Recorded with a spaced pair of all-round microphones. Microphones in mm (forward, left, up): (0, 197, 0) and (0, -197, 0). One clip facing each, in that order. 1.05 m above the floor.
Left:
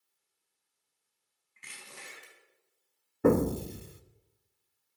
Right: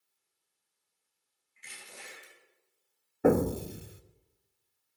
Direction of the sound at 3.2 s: 10° left (ahead or behind).